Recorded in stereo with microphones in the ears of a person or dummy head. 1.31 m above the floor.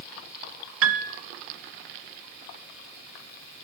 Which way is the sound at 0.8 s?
60° right (ahead or behind).